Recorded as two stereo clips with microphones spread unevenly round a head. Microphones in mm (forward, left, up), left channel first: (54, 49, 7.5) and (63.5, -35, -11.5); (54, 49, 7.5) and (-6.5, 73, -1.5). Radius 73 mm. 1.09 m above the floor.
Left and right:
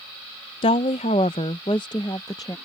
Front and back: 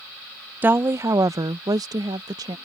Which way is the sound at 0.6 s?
105° left.